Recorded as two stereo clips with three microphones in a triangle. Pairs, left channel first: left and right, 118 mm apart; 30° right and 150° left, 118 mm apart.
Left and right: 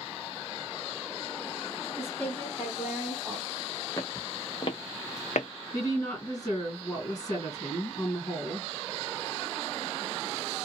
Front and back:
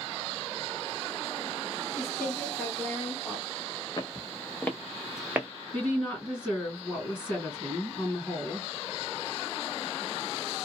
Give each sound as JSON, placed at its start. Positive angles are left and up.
{"t": 2.0, "sound": "a woman speaking", "azimuth_deg": 35, "distance_m": 1.7}
{"t": 4.0, "sound": "footsteps", "azimuth_deg": 25, "distance_m": 1.0}
{"t": 5.7, "sound": "a woman speaking", "azimuth_deg": 40, "distance_m": 2.5}